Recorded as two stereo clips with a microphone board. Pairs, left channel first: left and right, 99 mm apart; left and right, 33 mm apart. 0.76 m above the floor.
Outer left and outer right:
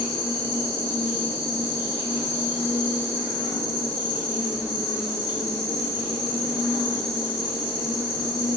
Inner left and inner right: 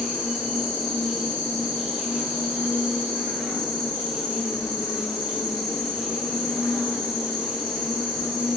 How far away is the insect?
About 1.2 m.